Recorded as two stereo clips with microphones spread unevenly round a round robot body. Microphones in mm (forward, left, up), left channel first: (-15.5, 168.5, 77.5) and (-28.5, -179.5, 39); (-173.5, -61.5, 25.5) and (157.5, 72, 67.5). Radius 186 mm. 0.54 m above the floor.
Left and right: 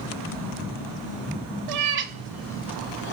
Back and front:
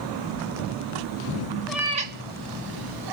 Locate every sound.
1.7 s a cat meowing: 65° right, 0.5 m; by 3.1 s 35° left, 0.8 m